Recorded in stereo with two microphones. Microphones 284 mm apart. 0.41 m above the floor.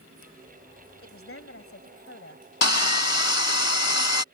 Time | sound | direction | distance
1.0 | a woman speaking | 50° left (ahead or behind) | ?
2.6 | sawing | 70° left (ahead or behind) | ?